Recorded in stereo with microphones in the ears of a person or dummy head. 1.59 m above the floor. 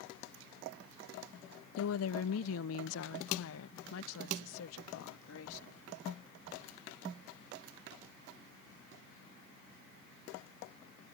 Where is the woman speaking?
80° left.